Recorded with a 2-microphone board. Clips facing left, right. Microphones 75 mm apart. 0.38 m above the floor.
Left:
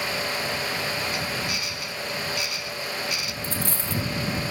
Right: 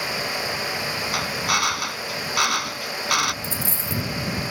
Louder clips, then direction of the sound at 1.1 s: Right 5 dB; 70° right (ahead or behind).